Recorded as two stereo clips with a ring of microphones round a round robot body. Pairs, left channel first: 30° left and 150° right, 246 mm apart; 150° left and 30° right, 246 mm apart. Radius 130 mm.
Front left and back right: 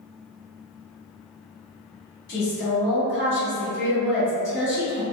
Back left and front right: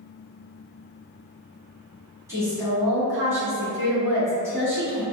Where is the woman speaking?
45° left, 1.5 m.